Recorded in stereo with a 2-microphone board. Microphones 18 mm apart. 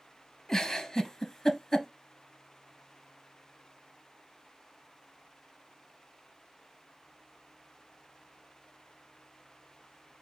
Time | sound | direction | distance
0.5 | a giggle | 35° left (ahead or behind) | 0.8 m